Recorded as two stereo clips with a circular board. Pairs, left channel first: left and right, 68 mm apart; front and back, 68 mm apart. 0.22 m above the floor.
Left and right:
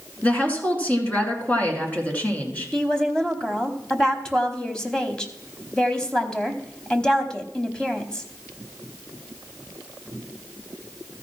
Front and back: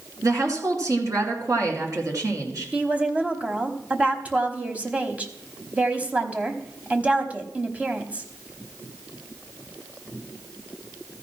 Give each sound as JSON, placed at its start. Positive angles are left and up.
{"t": 0.2, "sound": "a woman speaking", "azimuth_deg": 155, "distance_m": 2.5}
{"t": 2.7, "sound": "a woman speaking", "azimuth_deg": 150, "distance_m": 1.0}